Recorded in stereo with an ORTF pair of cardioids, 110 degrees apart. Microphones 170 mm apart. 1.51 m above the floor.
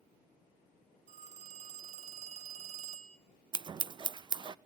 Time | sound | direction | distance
1.1 | a phone ringing | 50° right | 1.3 m
3.5 | scissors | 30° right | 0.6 m